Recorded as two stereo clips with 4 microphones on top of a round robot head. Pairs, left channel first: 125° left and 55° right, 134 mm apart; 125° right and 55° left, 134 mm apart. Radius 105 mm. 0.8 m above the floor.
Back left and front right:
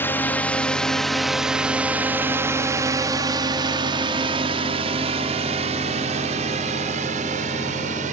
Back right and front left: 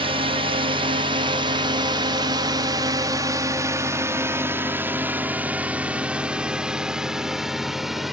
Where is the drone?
60° left; by 8.1 s 35° right.